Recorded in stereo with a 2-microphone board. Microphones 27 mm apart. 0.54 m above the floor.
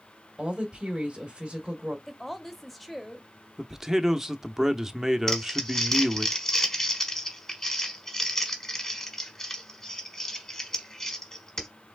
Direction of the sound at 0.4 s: 30° right (ahead or behind).